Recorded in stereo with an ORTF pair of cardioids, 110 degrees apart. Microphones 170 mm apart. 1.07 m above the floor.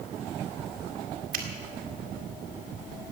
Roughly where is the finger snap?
Ahead right.